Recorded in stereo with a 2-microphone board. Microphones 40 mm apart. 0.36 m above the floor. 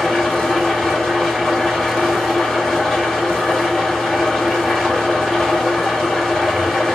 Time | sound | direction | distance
0.0 | an engine running | 5° left (ahead or behind) | 1.7 m